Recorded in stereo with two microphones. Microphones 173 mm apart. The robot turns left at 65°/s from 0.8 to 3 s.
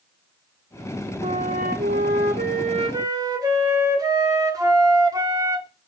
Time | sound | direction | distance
1.2 | a flute | 40° right | 1.7 m